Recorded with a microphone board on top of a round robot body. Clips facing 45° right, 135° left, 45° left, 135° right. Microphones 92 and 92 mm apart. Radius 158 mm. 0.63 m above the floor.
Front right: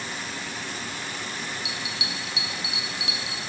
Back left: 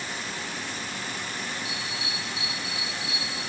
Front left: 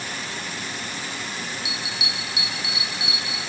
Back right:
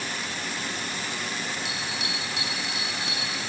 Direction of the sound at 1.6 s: 40° right.